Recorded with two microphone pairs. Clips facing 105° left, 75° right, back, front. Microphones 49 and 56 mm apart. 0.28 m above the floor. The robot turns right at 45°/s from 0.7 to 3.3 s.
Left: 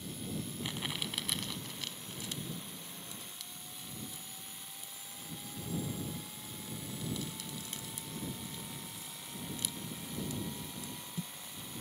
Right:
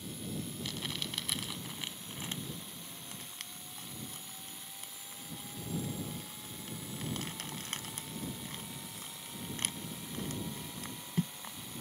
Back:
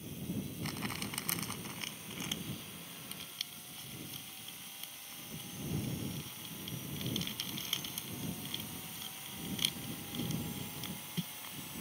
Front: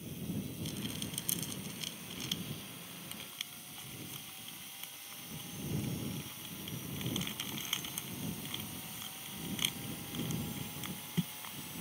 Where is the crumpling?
170° left; by 11.6 s 70° right.